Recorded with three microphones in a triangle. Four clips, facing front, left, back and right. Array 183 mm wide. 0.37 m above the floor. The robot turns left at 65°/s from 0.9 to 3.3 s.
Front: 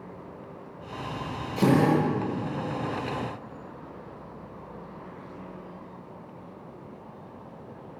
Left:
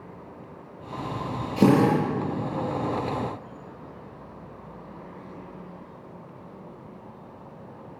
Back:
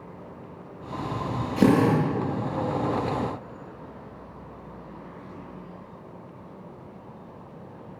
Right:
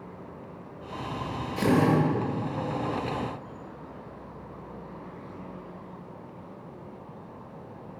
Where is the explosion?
No explosion in this recording.